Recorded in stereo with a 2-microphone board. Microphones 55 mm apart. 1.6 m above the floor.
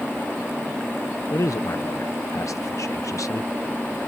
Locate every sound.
1.3 s a man speaking: 75° left (ahead or behind)